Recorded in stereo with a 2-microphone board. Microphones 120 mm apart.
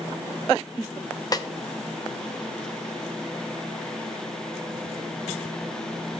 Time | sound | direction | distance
1.3 | a snare drum | 35° left (ahead or behind) | 0.6 m